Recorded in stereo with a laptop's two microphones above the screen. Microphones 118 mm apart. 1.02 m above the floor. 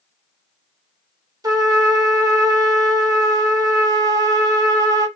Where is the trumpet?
30° right (ahead or behind), 0.8 m.